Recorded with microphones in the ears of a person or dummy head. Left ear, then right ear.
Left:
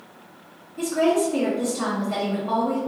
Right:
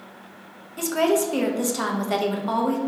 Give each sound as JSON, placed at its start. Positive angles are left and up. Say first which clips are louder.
{"t": 0.8, "sound": "a woman speaking", "louder": "even", "side_deg": -70, "distance_m": 0.8}